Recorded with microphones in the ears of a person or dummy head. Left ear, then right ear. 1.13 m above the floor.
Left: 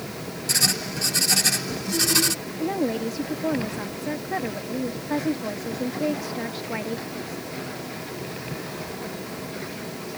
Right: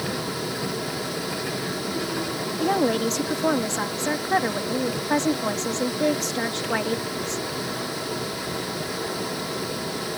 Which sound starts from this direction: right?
A woman speaking, at 2.6 s.